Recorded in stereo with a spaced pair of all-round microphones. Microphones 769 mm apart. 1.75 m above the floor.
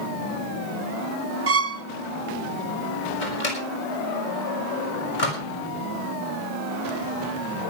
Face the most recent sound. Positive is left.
turn(degrees=75)  # may be behind; listen again after turning